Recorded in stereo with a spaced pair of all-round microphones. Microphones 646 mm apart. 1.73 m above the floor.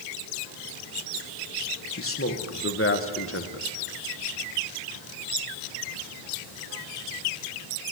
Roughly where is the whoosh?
No whoosh in this recording.